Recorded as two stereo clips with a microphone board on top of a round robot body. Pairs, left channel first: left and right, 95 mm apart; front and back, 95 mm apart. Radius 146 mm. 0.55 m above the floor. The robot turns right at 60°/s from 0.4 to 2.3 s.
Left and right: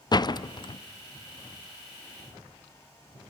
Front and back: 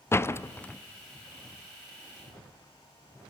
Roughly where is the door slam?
Ahead left.